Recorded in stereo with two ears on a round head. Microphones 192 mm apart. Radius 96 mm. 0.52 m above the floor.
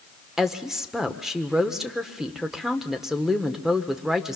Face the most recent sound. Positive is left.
turn(degrees=0)  # may be behind; listen again after turning